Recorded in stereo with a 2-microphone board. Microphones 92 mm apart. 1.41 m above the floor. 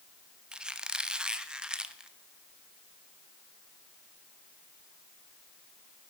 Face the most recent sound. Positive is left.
turn(degrees=-10)  # may be behind; listen again after turning